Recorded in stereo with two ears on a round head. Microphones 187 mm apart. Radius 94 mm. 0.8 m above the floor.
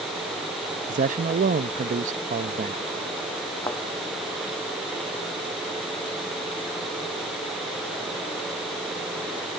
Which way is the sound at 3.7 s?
15° left (ahead or behind).